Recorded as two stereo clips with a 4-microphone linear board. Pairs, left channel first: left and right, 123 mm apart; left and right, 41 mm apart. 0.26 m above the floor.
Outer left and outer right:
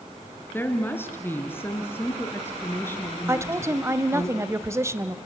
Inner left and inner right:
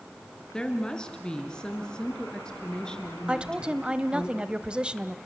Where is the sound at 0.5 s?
15° left (ahead or behind), 3.5 m.